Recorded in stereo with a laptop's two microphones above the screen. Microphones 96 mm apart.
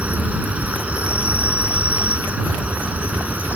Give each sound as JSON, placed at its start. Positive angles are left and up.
{"t": 0.0, "sound": "an insect", "side_deg": -15}